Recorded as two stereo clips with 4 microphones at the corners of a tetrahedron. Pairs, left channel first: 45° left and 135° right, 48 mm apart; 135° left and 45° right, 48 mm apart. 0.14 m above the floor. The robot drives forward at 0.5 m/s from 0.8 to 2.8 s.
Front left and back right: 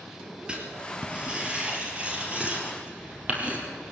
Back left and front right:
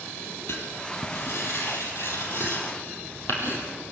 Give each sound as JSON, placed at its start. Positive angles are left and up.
{"t": 0.5, "sound": "writing", "azimuth_deg": 155, "distance_m": 3.5}